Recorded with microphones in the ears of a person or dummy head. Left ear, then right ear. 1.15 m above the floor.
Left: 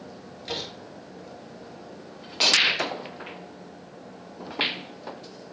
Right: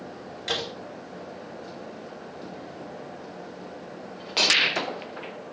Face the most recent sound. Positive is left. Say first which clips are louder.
# right 4 dB
turn(degrees=-30)  # may be behind; listen again after turning